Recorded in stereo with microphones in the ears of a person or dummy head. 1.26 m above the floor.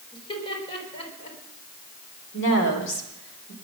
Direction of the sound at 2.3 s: 65° left (ahead or behind).